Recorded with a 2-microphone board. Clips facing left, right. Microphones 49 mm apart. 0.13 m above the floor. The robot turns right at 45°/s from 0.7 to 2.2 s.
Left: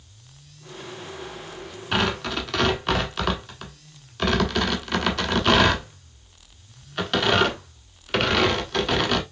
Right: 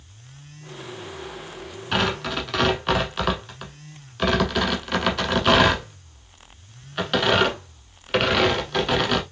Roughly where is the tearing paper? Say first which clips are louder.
Even; centre.